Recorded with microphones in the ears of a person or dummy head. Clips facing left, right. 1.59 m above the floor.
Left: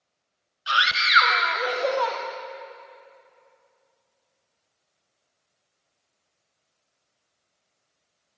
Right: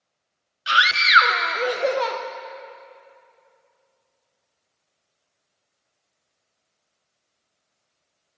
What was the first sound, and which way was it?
A scream, 25° right (ahead or behind).